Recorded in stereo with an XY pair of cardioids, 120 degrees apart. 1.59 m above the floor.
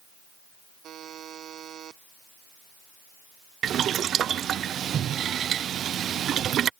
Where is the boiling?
50° right.